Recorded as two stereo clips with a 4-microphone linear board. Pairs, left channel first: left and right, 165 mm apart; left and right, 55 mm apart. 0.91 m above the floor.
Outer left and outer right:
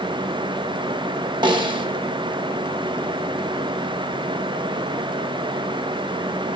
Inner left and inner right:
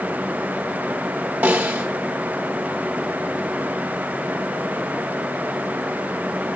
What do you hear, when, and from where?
1.4 s a snare drum: 30° right (ahead or behind), 0.6 m